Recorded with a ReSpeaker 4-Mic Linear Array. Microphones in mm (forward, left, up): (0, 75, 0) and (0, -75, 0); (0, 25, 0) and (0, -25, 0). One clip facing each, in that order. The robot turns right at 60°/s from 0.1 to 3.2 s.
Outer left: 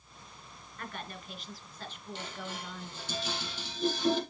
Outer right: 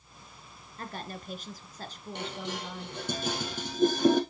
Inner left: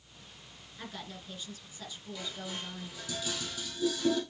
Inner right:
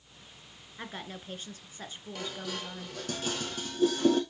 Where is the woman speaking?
135° right, 1.4 m; by 3.0 s straight ahead, 1.4 m.